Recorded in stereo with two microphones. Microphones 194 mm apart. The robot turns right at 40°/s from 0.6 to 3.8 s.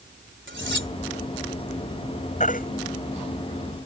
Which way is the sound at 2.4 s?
40° left (ahead or behind).